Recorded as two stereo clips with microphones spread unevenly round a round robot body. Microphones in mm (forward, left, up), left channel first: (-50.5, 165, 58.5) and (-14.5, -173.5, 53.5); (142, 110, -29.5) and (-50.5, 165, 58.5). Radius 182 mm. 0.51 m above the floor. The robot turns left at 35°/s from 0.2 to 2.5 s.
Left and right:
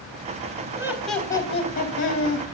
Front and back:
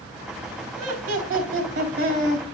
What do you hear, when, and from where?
0.8 s laughter: 165° right, 3.5 m; by 2.5 s 135° left, 3.5 m